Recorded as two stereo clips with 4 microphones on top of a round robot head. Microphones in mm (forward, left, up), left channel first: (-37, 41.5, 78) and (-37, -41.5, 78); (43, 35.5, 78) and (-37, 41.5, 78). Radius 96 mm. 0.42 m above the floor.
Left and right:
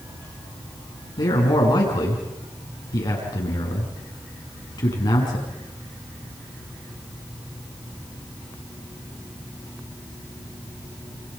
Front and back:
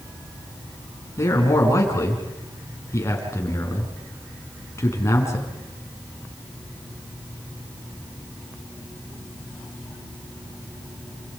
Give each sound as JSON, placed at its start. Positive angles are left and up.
{"t": 1.2, "sound": "a man speaking", "azimuth_deg": 45, "distance_m": 7.0}